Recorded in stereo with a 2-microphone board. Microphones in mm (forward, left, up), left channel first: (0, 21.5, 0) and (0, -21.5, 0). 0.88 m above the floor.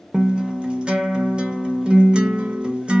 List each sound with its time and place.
0.1 s a guitar: 25° right (ahead or behind), 0.6 m